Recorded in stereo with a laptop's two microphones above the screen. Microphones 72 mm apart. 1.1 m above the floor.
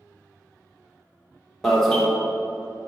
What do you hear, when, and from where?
1.6 s an alarm: 5° left (ahead or behind), 1.0 m